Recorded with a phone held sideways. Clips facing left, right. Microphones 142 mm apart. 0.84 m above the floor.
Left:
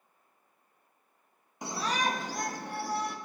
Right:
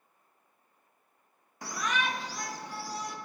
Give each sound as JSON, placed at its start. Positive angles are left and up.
{"t": 1.6, "sound": "a shout", "side_deg": 20, "distance_m": 0.8}